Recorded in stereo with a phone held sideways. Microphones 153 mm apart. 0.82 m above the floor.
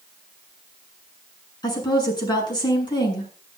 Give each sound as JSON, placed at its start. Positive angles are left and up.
{"t": 1.6, "sound": "a woman speaking", "side_deg": 25, "distance_m": 7.5}